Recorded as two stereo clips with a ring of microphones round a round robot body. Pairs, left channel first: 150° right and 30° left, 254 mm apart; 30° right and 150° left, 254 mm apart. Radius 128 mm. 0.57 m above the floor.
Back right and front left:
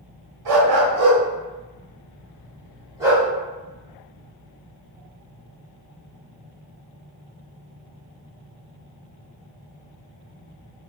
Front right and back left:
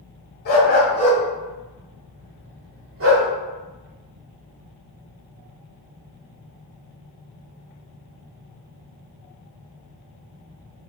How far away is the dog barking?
About 1.5 m.